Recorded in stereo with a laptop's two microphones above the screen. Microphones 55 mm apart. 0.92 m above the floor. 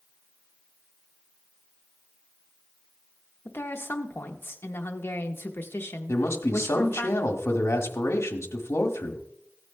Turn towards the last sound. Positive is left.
turn(degrees=55)  # may be behind; listen again after turning